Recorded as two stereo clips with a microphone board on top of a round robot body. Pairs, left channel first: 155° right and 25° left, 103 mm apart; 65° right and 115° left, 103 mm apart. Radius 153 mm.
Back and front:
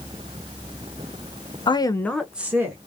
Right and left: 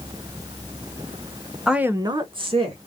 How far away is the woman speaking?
About 0.9 m.